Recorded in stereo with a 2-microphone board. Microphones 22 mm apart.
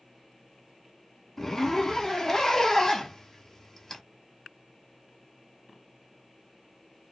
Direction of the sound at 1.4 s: 20° left (ahead or behind).